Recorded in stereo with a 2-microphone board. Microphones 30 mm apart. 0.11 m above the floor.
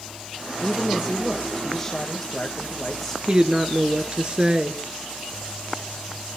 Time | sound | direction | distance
0.6 | a woman speaking | 15° left (ahead or behind) | 4 m
3.3 | a woman speaking | 35° right (ahead or behind) | 1.8 m